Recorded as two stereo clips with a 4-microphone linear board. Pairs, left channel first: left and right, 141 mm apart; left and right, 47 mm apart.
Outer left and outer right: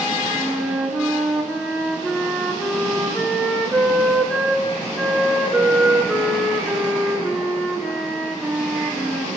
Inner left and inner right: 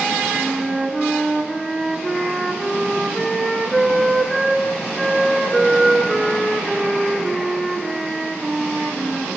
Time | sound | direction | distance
0.3 | a flute | centre (ahead or behind) | 3 m